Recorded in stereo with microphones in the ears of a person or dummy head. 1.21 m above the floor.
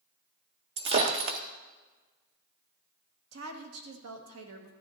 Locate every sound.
0.8 s breaking glass: 25° right (ahead or behind), 0.5 m
3.3 s a woman speaking: 80° right, 1.7 m